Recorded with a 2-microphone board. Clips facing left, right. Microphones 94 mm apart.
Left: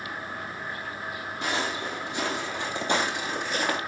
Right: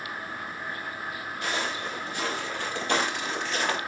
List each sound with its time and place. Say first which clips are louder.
1.4 s footsteps: left 2 dB; 25° left (ahead or behind), 4 m; by 3.8 s 10° left (ahead or behind), 2.5 m